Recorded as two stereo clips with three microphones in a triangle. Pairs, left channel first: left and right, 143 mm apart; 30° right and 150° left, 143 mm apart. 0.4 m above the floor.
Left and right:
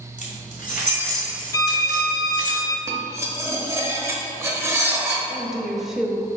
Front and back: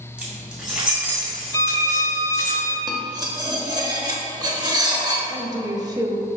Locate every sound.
0.2 s keys jangling: 70° left, 2 m; by 2.5 s 65° left, 3.5 m
1.5 s a violin: 30° left, 0.5 m
2.9 s cutlery clinking: 155° right, 0.9 m
5.3 s a woman speaking: 175° right, 0.9 m